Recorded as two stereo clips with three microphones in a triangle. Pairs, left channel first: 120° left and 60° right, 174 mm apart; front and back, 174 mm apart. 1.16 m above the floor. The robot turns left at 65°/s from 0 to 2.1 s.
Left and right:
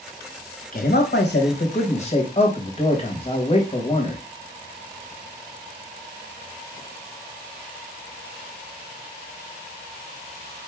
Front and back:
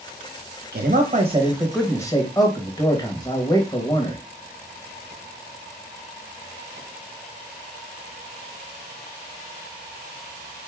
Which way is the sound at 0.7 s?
160° left.